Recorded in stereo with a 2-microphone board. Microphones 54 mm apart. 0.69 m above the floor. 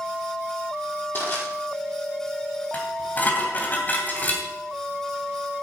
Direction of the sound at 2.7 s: 35° left (ahead or behind).